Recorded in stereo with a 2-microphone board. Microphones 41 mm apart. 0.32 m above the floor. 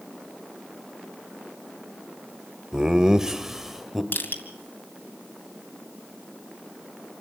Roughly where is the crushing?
Left.